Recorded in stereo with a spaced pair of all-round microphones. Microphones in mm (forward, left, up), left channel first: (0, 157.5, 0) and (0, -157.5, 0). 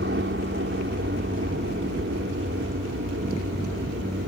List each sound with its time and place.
0.0 s a helicopter: 35° right (ahead or behind)